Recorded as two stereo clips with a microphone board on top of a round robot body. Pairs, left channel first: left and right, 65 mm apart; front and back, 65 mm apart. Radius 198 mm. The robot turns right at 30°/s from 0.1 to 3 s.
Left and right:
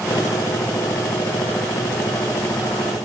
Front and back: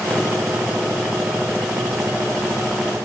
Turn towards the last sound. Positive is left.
No sound to turn to.